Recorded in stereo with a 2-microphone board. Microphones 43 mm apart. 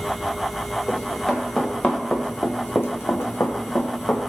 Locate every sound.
0.9 s running footsteps: 5° left (ahead or behind), 1.2 m; by 4.2 s 50° left (ahead or behind), 0.8 m